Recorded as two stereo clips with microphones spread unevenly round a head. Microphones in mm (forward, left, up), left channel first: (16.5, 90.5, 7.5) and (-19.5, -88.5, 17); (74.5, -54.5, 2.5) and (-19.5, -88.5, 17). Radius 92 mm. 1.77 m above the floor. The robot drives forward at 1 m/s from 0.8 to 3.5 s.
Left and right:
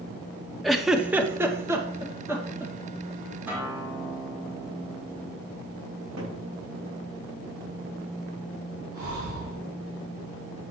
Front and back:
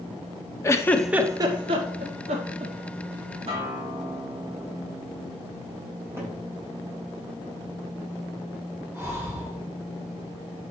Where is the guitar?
Straight behind, 3 m.